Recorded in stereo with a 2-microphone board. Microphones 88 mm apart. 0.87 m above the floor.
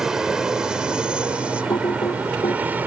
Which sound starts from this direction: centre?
An aircraft, at 0.0 s.